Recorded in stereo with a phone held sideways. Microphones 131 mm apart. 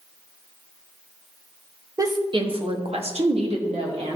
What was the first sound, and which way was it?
A woman speaking, 30° right (ahead or behind).